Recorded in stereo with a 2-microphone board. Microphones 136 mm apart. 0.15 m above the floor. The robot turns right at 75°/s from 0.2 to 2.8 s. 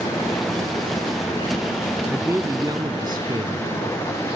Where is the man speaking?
160° right; by 3.7 s 105° right.